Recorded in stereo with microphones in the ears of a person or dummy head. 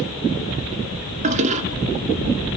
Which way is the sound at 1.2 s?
35° right (ahead or behind).